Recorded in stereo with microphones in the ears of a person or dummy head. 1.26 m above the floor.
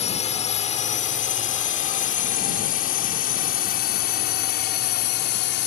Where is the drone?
30° left (ahead or behind); by 5.7 s 50° left (ahead or behind).